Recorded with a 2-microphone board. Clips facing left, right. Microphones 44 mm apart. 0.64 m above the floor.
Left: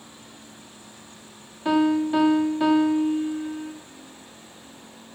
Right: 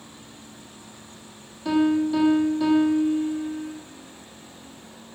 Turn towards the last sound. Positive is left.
turn(degrees=40)  # may be behind; listen again after turning